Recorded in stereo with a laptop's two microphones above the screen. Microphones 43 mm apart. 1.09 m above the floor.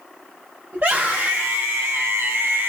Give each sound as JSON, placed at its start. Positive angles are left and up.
{"t": 0.7, "sound": "a scream", "side_deg": -55, "distance_m": 1.1}